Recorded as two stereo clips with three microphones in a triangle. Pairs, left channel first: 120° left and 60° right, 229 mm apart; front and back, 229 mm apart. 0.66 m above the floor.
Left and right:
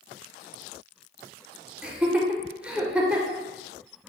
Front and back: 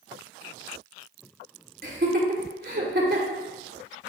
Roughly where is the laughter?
Behind right.